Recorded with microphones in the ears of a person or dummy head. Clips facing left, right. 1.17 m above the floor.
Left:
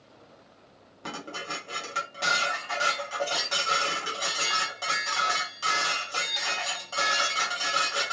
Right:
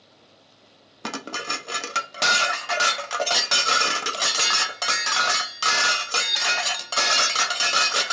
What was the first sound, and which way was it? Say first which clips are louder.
Dishes clattering: right 5 dB; 75° right (ahead or behind).